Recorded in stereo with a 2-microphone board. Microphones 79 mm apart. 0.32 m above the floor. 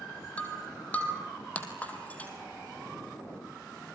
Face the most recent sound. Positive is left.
turn(degrees=15)  # may be behind; listen again after turning